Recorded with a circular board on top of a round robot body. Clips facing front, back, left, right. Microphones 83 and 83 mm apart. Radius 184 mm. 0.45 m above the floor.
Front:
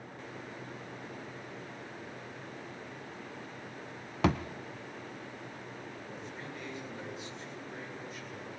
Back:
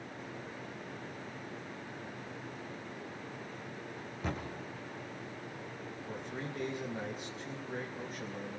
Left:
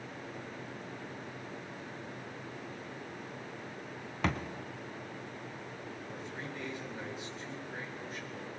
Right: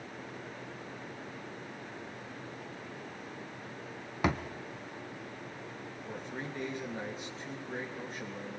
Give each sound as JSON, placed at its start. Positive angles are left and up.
{"t": 4.2, "sound": "a thud", "azimuth_deg": -10, "distance_m": 0.9}
{"t": 6.1, "sound": "a man speaking", "azimuth_deg": -140, "distance_m": 3.0}